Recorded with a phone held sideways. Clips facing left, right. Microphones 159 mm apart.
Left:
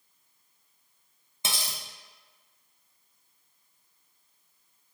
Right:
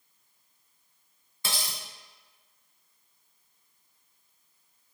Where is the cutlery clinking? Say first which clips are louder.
Even; 20° left (ahead or behind), 0.9 m.